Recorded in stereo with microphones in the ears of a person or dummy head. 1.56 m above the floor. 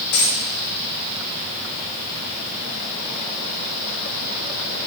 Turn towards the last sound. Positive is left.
turn(degrees=55)  # may be behind; listen again after turning